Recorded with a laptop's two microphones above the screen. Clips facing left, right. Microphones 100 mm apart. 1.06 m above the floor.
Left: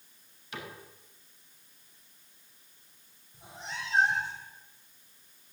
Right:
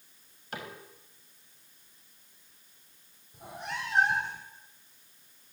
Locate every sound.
0.5 s a cupboard door: 50° right (ahead or behind), 4.5 m
3.3 s a cat meowing: 60° right (ahead or behind), 4 m